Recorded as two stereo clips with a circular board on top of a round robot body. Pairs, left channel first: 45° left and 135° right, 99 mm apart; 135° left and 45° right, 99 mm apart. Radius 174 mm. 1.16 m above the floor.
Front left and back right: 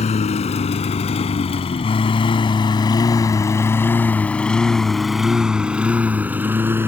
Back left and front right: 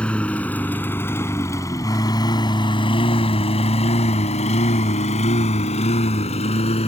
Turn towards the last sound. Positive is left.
turn(degrees=155)